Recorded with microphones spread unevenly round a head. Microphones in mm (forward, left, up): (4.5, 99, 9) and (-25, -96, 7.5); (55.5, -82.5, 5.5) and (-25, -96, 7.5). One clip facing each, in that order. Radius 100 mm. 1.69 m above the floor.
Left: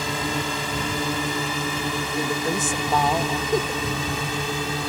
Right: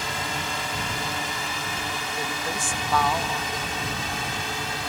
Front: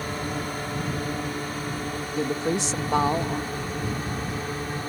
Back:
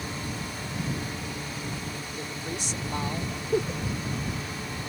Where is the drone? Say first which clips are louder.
Left 5 dB, front 5 dB; 75° left; by 4.9 s 80° left.